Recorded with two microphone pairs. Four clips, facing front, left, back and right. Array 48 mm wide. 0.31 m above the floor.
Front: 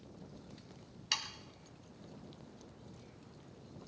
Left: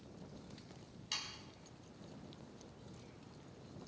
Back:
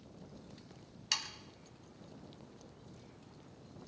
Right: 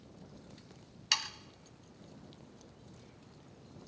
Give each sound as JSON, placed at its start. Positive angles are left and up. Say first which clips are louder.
{"t": 1.1, "sound": "sawing", "louder": "right 11 dB, even", "azimuth_deg": -85, "distance_m": 0.7}